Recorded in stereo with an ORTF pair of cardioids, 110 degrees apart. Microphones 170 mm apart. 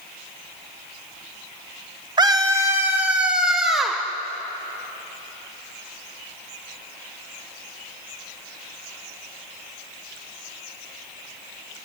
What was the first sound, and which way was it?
A scream, 25° right.